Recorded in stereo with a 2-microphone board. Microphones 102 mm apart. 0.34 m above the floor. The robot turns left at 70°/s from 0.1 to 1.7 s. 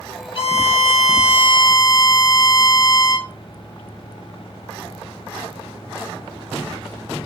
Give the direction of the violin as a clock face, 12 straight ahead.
8 o'clock.